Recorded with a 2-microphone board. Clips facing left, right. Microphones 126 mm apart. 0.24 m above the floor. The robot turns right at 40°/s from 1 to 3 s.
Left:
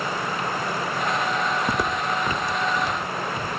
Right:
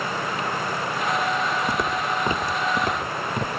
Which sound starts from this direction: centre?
Footsteps, at 1.7 s.